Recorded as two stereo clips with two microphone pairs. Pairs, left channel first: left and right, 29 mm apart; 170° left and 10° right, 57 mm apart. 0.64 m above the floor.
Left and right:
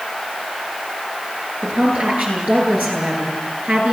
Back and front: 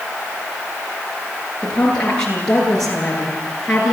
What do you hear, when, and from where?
1.6 s a woman speaking: 115° right, 9.5 m; by 3.9 s 105° right, 8 m